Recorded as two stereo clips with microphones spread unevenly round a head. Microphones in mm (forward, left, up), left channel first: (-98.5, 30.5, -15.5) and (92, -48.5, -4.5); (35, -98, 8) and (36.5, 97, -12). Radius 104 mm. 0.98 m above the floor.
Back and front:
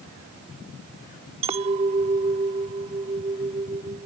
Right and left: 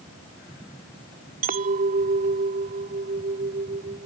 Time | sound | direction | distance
1.4 | a clink | 40° left | ?